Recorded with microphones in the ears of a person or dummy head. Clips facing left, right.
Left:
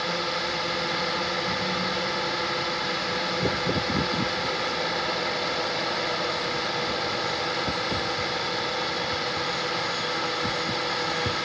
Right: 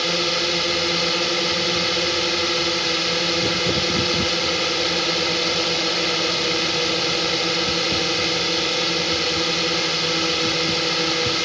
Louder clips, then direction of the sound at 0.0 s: Right 6 dB; 40° right (ahead or behind).